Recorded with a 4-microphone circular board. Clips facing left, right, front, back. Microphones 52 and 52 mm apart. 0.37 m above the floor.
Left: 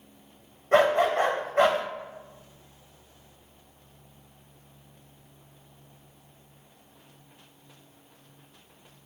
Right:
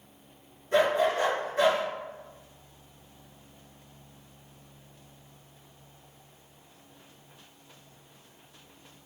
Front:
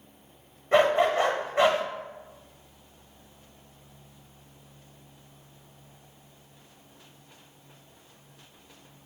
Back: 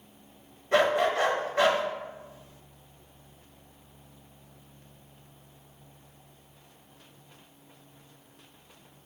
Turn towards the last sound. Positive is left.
turn(degrees=65)